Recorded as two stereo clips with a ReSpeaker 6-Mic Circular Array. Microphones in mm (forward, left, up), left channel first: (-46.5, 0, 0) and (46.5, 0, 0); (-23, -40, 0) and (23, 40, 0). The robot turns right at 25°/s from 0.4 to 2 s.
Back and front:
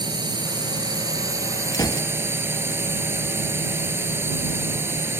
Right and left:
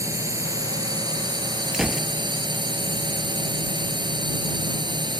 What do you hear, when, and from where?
0.0 s a drone: 15° left; by 5.2 s 55° left
1.7 s a gunshot: 145° left; by 2.1 s 150° left